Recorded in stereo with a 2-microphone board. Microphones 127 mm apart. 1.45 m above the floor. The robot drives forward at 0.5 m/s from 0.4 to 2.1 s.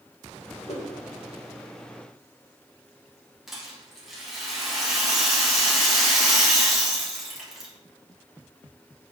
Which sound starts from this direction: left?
A whoosh, at 0.7 s.